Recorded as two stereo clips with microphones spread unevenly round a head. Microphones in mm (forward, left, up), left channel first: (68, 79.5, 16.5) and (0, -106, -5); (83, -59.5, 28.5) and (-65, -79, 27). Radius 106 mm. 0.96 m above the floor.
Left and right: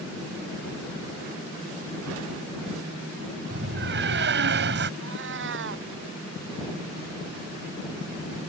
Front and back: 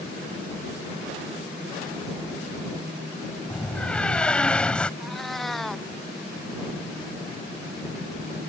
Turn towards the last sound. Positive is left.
turn(degrees=-80)